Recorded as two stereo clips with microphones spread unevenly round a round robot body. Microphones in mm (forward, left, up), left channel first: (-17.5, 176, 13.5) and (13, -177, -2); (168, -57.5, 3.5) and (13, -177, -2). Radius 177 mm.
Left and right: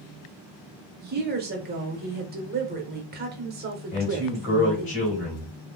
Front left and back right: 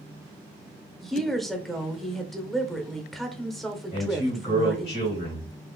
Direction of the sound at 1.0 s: 55° right.